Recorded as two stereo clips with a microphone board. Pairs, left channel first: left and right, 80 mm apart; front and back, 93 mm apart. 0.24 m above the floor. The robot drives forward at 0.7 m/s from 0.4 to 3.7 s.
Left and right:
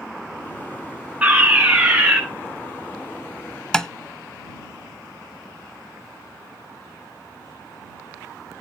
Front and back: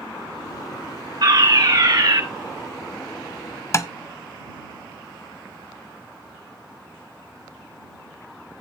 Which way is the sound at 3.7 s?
15° left.